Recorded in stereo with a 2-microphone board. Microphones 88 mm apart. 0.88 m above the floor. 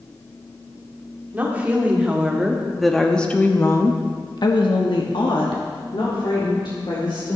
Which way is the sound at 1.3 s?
20° right (ahead or behind).